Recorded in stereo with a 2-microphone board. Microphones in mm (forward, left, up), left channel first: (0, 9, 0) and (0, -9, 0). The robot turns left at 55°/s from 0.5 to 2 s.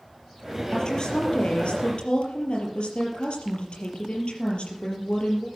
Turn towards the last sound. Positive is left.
turn(degrees=75)